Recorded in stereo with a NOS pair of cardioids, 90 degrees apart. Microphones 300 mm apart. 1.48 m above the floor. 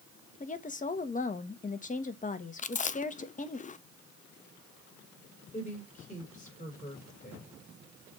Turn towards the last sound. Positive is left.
turn(degrees=25)